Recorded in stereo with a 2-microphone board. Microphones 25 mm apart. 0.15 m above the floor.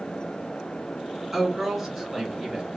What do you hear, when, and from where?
1.3 s a woman speaking: 10° right (ahead or behind), 1.6 m